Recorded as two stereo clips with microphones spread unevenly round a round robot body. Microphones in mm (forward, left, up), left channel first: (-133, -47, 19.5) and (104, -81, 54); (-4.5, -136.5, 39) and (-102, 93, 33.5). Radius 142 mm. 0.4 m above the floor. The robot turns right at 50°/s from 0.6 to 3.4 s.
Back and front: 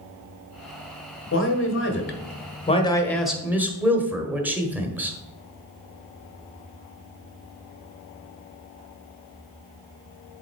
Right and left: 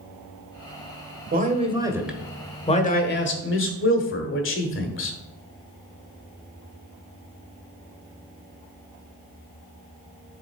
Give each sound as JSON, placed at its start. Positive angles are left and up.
{"t": 1.3, "sound": "a man speaking", "azimuth_deg": 160, "distance_m": 1.5}